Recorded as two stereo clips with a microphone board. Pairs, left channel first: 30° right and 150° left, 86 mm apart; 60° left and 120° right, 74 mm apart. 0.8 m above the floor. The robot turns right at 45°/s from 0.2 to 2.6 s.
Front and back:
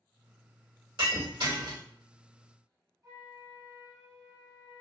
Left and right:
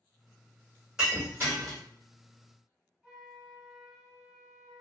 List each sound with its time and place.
1.0 s breaking glass: 160° left, 1.6 m; by 1.8 s 165° right, 1.6 m
3.0 s a flute: straight behind, 1.1 m